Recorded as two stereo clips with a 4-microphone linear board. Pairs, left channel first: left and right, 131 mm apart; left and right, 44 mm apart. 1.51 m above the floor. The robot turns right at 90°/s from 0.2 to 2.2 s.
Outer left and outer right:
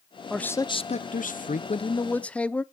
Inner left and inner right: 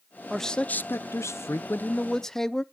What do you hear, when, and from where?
0.3 s a man speaking: straight ahead, 0.5 m; by 2.6 s 170° left, 0.5 m